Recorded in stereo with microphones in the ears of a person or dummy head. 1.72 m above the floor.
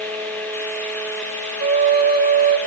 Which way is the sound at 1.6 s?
25° right (ahead or behind).